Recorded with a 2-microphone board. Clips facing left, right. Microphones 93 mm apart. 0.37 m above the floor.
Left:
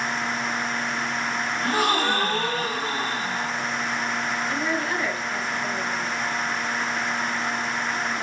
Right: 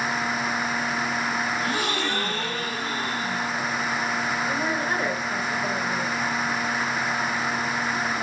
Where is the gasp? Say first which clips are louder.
Left 4 dB; 50° left (ahead or behind), 3.5 m.